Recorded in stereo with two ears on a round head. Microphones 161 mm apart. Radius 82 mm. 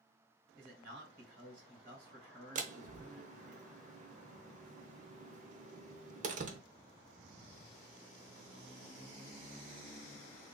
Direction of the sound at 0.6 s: 55° right (ahead or behind).